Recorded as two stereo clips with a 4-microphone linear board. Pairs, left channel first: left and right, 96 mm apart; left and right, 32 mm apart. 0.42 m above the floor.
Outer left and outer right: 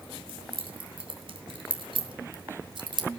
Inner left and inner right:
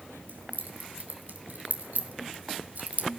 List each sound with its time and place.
0.3 s keys jangling: 65° right (ahead or behind), 3.5 m; by 3.1 s 55° right (ahead or behind), 1.7 m